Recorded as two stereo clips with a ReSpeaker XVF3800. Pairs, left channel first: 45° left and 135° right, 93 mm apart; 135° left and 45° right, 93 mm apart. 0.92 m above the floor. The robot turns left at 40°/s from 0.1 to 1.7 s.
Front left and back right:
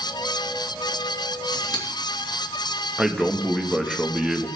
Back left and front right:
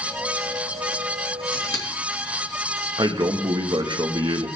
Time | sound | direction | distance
1.5 | scissors | 90° left | 2.5 m
3.0 | a man speaking | 55° right | 1.2 m